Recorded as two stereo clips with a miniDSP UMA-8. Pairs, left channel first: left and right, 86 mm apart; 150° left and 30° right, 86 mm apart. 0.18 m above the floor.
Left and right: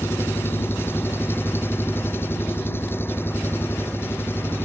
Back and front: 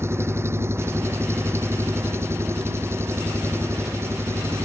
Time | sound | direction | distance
0.0 | an engine running | 25° left | ?